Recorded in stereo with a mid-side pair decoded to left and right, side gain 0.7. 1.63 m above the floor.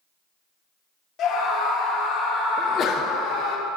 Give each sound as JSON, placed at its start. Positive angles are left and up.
{"t": 1.2, "sound": "a scream", "azimuth_deg": 50, "distance_m": 3.0}
{"t": 2.6, "sound": "a sneeze", "azimuth_deg": 40, "distance_m": 0.9}